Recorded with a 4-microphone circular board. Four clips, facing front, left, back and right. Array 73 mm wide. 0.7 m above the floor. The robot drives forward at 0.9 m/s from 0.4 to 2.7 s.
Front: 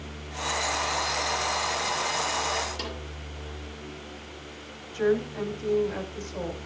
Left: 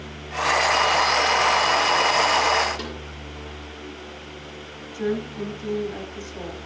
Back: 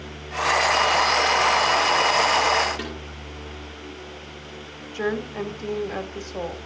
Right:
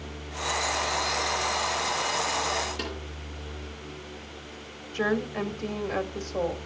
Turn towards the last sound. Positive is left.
turn(degrees=-135)